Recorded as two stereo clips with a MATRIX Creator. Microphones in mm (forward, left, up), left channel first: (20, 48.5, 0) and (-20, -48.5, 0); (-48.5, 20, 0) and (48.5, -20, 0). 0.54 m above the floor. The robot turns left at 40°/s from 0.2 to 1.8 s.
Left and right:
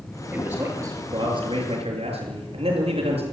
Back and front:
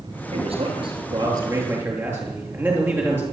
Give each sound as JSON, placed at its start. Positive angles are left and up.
{"t": 0.3, "sound": "a man speaking", "azimuth_deg": -30, "distance_m": 8.0}